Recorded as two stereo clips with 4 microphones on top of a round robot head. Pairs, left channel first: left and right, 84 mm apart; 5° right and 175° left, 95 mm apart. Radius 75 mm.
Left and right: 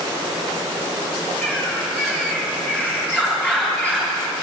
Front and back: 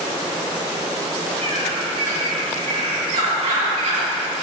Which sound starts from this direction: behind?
A bird, at 1.4 s.